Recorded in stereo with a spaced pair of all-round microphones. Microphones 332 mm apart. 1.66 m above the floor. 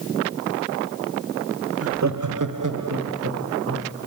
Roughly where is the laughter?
Right.